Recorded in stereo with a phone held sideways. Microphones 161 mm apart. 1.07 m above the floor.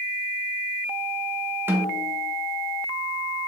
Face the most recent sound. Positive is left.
turn(degrees=-15)  # may be behind; listen again after turning